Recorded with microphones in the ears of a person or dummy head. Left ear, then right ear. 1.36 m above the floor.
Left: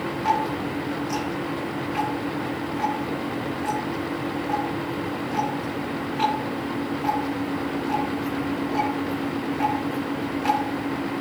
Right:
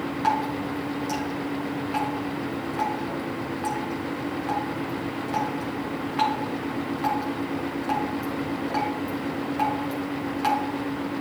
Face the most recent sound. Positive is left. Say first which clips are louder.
# left 1 dB
turn(degrees=-50)  # may be behind; listen again after turning